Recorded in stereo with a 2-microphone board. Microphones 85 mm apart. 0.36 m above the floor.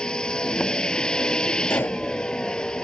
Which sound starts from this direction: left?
A pop, at 1.7 s.